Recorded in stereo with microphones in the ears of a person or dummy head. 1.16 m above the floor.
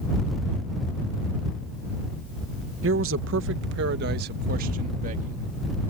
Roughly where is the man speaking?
Right.